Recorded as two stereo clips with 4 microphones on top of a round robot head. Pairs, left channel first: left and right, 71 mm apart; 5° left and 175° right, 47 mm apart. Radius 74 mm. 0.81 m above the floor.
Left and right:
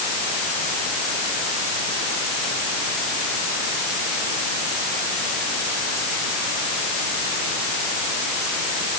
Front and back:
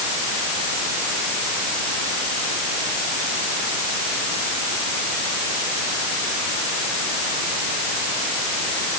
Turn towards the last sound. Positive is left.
No sound to turn to.